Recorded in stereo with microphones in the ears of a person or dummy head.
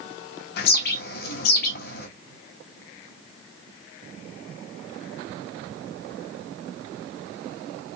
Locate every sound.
0.6 s a bird: 60° left (ahead or behind), 1.2 m